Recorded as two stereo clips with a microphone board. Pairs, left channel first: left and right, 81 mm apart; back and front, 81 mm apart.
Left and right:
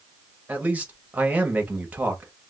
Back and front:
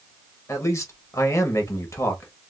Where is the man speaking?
150° right, 0.9 m.